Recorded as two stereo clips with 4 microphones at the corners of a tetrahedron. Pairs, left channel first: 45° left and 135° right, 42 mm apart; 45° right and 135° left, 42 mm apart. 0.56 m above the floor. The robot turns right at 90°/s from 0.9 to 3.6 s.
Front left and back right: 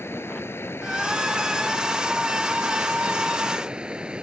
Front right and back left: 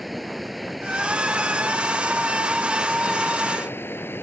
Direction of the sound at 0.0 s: 45° left.